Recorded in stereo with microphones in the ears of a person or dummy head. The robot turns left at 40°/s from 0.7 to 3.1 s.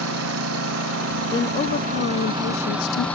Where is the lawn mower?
85° right; by 3.2 s 10° left (ahead or behind).